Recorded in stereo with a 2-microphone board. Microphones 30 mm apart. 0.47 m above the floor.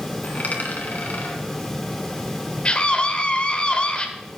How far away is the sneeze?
I don't hear a sneeze.